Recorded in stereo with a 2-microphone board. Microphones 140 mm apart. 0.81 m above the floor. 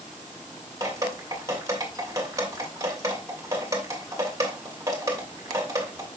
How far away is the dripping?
About 2.5 m.